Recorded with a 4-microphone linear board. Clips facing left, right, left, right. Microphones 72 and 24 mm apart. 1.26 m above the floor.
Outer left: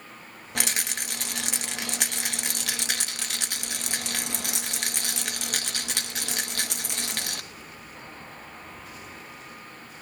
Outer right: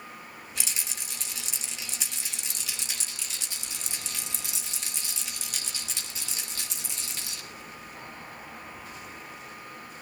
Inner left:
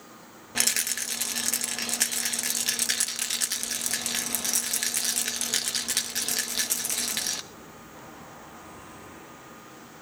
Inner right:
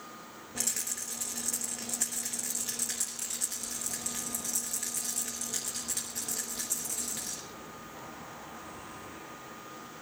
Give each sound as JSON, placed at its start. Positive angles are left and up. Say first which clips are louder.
{"t": 0.6, "sound": "a rattle", "louder": "outer left 10 dB, inner left 9 dB", "side_deg": 65, "distance_m": 1.0}